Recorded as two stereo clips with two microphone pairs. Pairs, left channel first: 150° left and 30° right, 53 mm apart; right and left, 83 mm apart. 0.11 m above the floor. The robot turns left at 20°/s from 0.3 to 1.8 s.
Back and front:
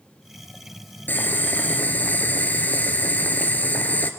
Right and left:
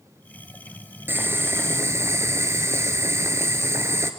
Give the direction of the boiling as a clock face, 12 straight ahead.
7 o'clock.